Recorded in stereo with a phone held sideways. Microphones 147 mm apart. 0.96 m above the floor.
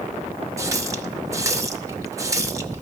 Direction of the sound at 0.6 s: 20° right (ahead or behind).